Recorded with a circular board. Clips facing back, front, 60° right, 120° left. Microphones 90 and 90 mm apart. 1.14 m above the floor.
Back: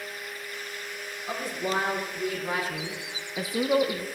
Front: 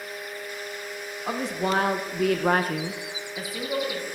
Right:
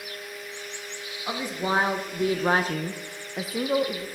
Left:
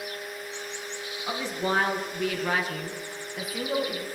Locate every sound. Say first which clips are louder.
1.3 s a woman speaking: front 4 dB, right 1 dB; 15° left, 1.8 m; by 4.1 s 135° right, 1.2 m